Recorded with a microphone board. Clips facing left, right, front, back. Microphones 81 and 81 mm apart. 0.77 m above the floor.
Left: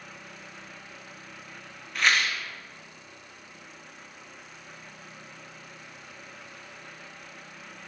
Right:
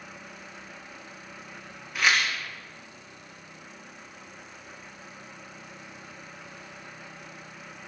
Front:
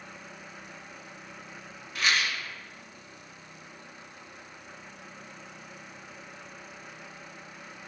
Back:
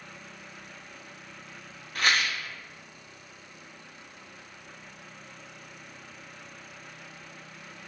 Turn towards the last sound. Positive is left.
turn(degrees=-175)